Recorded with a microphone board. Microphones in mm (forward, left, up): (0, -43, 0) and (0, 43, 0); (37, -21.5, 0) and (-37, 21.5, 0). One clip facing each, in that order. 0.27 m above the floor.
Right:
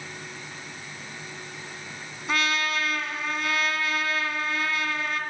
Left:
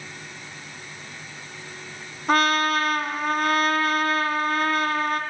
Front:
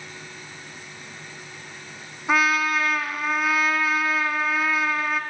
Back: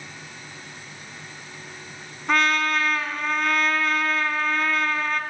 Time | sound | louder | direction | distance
2.3 | a trumpet | left 7 dB, even | 50° left | 1.0 m